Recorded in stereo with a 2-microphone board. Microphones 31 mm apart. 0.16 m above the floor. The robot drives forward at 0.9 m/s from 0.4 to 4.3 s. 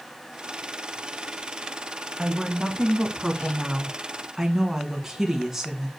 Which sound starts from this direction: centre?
A woman speaking, at 2.2 s.